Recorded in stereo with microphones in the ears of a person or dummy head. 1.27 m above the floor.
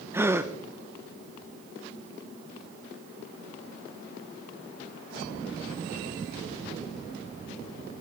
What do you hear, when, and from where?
0.1 s a gasp: 10° right (ahead or behind), 0.8 m